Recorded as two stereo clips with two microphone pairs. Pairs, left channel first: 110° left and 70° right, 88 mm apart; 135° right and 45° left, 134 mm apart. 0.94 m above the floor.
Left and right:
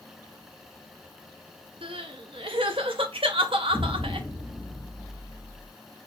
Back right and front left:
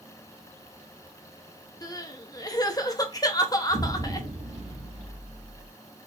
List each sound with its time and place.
1.8 s crying: 70° right, 0.6 m
3.7 s an explosion: 25° left, 1.6 m